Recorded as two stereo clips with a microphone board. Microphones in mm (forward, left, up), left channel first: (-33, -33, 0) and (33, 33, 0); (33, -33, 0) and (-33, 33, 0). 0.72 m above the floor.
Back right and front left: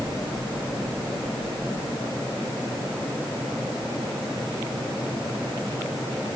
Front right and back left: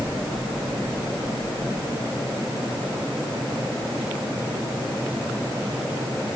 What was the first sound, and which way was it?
Only background noise.